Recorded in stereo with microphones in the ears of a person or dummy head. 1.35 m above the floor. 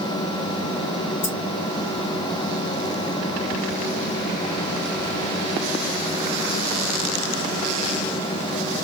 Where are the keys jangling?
30° left (ahead or behind), 2.5 m.